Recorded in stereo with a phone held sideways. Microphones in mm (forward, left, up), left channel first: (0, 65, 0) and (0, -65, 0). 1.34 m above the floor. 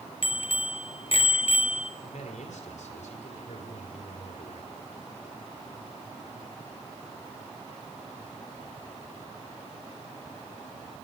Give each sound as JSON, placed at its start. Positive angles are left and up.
{"t": 0.2, "sound": "a bicycle bell", "side_deg": 50, "distance_m": 3.5}
{"t": 2.0, "sound": "a man speaking", "side_deg": 80, "distance_m": 5.5}